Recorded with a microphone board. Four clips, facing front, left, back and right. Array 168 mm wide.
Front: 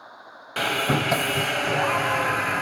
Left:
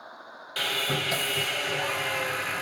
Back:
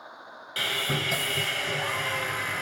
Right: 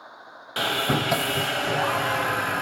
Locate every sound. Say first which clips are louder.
0.6 s sawing: right 6 dB, front 7 dB; 40° right, 0.7 m